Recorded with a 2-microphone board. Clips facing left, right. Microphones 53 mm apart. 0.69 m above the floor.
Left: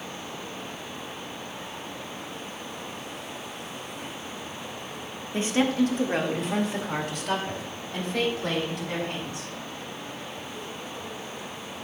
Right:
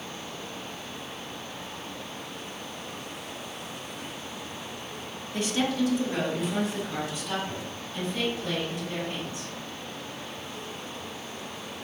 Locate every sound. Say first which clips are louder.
5.3 s a woman speaking: left 3 dB; 30° left (ahead or behind), 1.3 m; by 9.5 s 80° left, 5 m